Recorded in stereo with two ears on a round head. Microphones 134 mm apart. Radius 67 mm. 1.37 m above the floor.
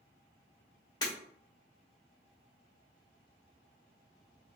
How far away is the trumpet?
No trumpet in this recording.